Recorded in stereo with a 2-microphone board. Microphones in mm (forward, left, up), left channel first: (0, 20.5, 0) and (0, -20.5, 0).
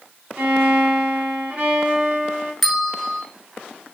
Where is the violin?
35° right (ahead or behind), 0.8 m.